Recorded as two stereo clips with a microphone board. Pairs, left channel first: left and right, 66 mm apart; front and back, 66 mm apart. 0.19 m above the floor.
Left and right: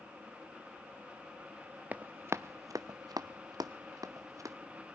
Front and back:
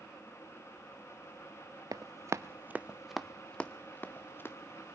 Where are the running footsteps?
155° right, 0.8 m; by 4.5 s 55° right, 1.5 m.